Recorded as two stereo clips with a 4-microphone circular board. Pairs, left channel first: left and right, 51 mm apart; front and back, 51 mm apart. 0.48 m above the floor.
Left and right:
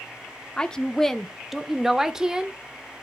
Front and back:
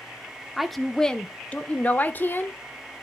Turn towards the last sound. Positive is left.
turn(degrees=-15)